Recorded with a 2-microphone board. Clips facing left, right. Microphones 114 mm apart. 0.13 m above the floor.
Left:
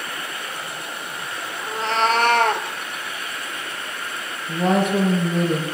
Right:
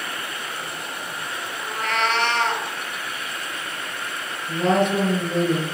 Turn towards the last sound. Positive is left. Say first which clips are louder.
# even
turn(degrees=5)  # may be behind; listen again after turning